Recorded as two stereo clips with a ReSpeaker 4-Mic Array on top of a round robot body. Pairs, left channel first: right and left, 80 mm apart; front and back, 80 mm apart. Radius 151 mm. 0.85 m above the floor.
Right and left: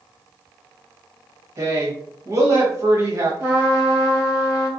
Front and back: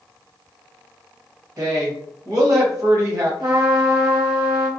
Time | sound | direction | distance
1.6 | a woman speaking | 140° left | 1.6 m
3.4 | a trumpet | 150° left | 2.0 m